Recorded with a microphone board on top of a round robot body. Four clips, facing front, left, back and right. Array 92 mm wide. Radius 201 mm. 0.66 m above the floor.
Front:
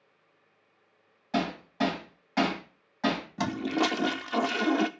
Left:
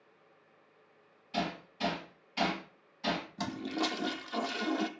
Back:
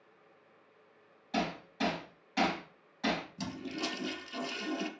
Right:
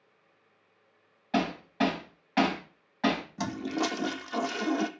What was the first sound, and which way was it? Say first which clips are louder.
Hammering: right 7 dB, front 5 dB; 65° right.